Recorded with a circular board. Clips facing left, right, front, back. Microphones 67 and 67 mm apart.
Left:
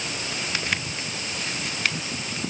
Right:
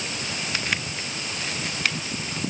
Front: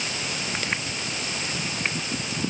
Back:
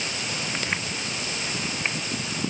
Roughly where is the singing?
No singing in this recording.